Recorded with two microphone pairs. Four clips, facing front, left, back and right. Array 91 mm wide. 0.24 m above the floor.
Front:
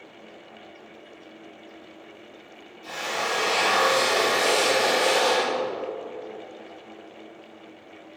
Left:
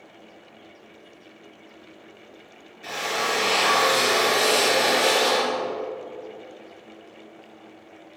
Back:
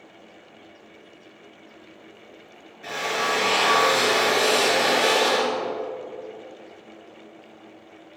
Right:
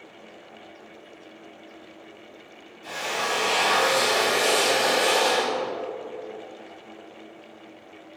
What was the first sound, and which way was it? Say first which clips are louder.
A drill: left 2 dB, back 3 dB; 145° left.